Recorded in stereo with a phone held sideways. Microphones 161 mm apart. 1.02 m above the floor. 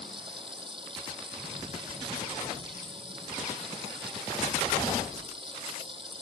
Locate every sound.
0.0 s running water: 30° right (ahead or behind)